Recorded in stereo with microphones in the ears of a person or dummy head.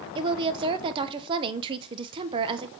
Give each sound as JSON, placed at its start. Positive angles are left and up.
{"t": 0.1, "sound": "a woman speaking", "side_deg": -30, "distance_m": 0.6}